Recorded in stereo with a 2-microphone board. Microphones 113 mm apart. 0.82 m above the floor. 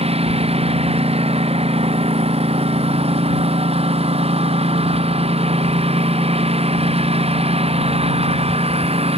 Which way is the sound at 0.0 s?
65° right (ahead or behind).